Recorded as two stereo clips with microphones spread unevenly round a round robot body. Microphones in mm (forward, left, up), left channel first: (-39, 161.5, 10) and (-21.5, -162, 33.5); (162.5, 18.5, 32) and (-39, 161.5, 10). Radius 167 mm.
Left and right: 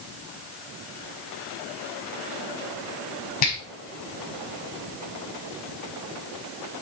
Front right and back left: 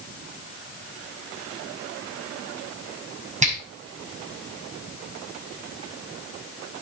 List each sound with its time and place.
3.4 s a finger snap: 85° left, 5 m